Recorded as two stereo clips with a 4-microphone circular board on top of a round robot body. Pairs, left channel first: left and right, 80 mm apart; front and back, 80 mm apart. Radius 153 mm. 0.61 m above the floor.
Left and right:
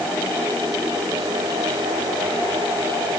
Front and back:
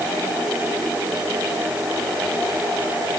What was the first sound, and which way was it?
Only background noise.